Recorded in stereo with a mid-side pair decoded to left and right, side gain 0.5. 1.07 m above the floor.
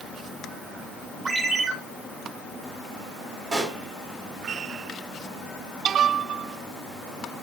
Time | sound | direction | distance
1.2 | a ringtone | 45° right | 2.5 m
3.5 | a pop | 45° right | 1.9 m